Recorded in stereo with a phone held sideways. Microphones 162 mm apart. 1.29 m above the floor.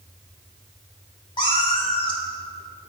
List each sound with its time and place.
1.4 s a cat meowing: 30° left (ahead or behind), 1.1 m